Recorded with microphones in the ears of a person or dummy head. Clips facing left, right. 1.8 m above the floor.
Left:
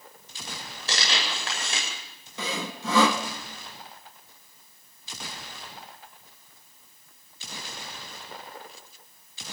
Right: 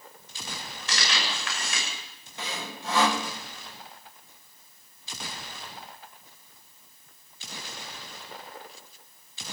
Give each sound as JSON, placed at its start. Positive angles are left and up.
{"t": 0.9, "sound": "tearing paper", "side_deg": 30, "distance_m": 8.5}
{"t": 2.4, "sound": "sawing", "side_deg": 75, "distance_m": 1.7}